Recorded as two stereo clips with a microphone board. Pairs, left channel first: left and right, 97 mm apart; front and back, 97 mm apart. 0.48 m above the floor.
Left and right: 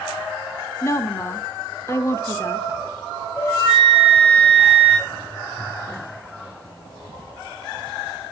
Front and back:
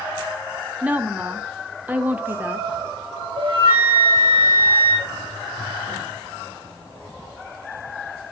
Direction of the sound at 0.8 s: 120° left.